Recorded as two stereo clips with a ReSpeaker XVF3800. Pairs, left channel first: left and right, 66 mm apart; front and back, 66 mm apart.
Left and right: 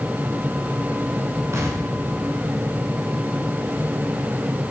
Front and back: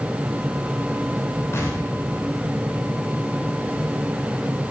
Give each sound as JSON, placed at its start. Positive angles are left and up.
{"t": 1.5, "sound": "an explosion", "azimuth_deg": -45, "distance_m": 4.0}